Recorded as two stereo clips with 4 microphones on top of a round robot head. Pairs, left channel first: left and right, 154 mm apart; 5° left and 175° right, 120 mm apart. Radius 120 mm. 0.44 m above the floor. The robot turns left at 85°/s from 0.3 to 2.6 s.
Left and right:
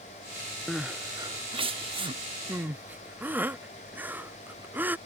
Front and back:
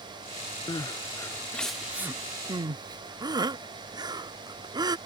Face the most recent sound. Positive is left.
turn(degrees=-160)